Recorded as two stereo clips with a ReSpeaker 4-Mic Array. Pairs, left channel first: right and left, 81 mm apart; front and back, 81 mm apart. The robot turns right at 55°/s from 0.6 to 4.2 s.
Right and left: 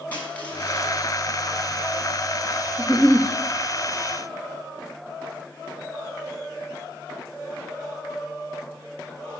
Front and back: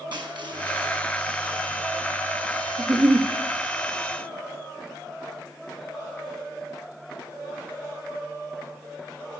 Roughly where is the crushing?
Behind.